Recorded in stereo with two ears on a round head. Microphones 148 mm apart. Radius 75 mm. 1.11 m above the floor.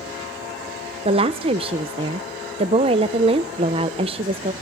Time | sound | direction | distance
1.1 | a woman speaking | 35° right (ahead or behind) | 0.6 m